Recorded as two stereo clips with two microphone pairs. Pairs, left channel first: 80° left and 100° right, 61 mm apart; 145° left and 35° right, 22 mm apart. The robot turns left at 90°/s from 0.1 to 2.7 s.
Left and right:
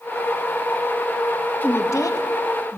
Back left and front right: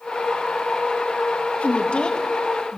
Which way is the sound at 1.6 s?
145° left.